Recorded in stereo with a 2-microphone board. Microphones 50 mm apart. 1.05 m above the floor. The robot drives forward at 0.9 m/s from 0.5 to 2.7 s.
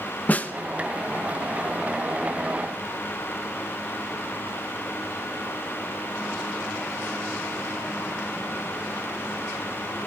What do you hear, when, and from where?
0.3 s a snare drum: 35° left (ahead or behind), 1.3 m